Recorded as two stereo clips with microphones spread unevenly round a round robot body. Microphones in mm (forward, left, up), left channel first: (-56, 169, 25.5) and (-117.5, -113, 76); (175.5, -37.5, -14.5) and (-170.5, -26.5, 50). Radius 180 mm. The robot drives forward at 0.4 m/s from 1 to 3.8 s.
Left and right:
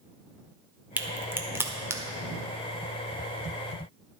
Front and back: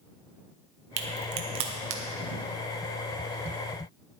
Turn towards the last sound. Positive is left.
turn(degrees=175)